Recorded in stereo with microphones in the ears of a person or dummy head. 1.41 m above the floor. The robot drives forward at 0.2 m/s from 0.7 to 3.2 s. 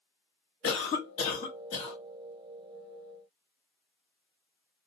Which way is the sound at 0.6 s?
40° left (ahead or behind).